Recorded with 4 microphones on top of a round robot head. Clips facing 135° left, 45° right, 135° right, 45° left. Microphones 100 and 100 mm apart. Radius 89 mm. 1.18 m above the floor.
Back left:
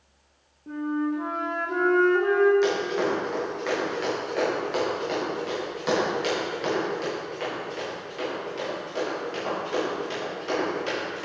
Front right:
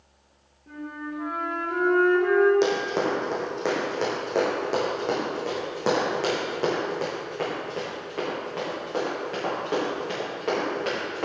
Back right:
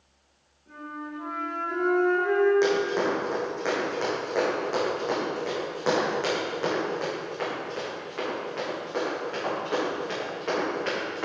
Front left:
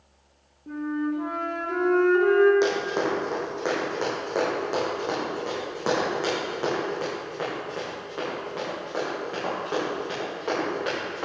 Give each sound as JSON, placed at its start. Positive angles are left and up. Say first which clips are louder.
{"t": 0.7, "sound": "a flute", "louder": "back left 8 dB, front left 10 dB", "azimuth_deg": 75, "distance_m": 1.7}
{"t": 2.6, "sound": "running footsteps", "louder": "even, back right 1 dB", "azimuth_deg": -25, "distance_m": 4.0}